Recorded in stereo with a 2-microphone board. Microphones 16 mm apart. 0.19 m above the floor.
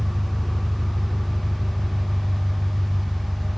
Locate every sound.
0.0 s an engine running: centre (ahead or behind), 2.5 m